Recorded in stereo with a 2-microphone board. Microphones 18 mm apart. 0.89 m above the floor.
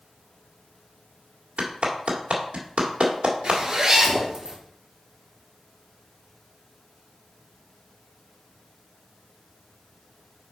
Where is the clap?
85° right, 1.5 m.